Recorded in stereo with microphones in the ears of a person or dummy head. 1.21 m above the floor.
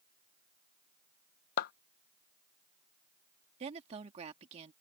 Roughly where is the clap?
Left.